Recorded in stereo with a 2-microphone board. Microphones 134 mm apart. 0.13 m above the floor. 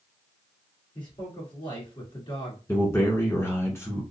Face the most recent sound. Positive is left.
turn(degrees=20)  # may be behind; listen again after turning